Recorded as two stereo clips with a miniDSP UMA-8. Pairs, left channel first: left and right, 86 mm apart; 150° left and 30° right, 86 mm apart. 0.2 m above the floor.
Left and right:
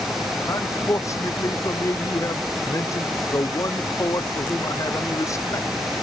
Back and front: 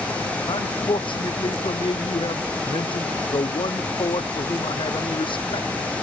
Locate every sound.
0.5 s a man speaking: 140° left